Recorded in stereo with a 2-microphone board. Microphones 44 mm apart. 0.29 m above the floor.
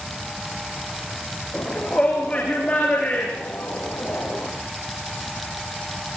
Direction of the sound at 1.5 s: 15° left (ahead or behind).